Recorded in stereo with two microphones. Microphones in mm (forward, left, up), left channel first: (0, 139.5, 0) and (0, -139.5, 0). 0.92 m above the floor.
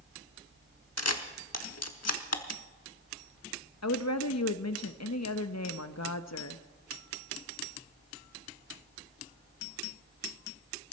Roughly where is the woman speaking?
Left.